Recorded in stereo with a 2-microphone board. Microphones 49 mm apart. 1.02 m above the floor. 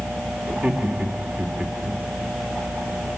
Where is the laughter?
35° right (ahead or behind), 2.5 m.